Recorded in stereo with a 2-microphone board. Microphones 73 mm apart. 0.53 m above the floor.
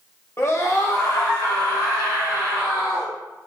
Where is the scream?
40° left (ahead or behind), 0.8 m; by 3.1 s 70° left (ahead or behind), 2.5 m.